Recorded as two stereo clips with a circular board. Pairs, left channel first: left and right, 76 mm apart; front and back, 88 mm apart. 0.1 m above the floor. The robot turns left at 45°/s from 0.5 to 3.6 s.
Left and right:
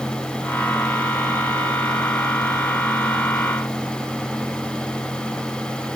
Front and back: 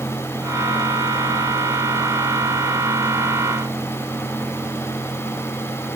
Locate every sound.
Only background noise.